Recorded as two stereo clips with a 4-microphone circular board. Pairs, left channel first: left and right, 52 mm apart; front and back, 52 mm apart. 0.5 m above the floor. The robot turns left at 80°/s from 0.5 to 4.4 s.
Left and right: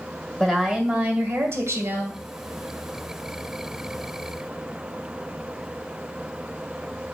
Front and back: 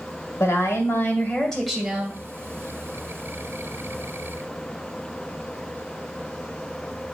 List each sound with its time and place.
0.4 s a woman speaking: 10° left, 1.7 m; by 2.2 s 125° right, 1.7 m